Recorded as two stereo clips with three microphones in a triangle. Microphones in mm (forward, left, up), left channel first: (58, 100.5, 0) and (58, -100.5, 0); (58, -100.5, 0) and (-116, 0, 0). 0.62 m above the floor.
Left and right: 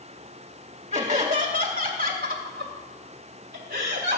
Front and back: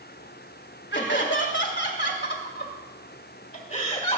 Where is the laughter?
35° right, 2 m; by 4.2 s 90° right, 1.7 m.